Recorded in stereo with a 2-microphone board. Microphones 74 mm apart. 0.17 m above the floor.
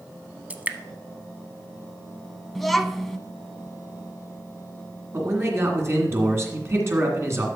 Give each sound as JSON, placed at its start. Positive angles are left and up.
{"t": 0.5, "sound": "dripping", "side_deg": -20, "distance_m": 0.6}
{"t": 2.5, "sound": "a child speaking", "side_deg": 0, "distance_m": 0.6}
{"t": 5.1, "sound": "a man speaking", "side_deg": -40, "distance_m": 2.0}